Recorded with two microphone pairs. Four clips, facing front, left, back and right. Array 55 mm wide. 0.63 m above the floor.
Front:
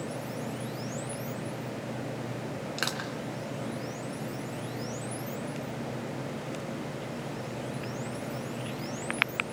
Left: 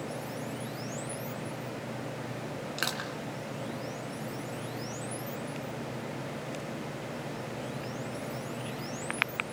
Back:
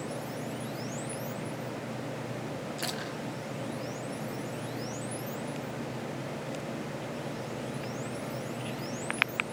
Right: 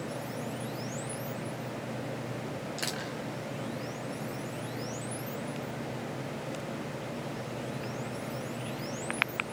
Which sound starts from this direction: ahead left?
Crushing, at 2.8 s.